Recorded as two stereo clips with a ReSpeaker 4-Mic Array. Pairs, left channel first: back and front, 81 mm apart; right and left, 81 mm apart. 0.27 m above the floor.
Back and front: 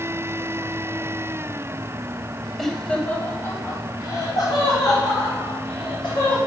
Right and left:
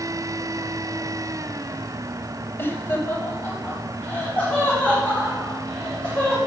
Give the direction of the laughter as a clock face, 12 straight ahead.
3 o'clock.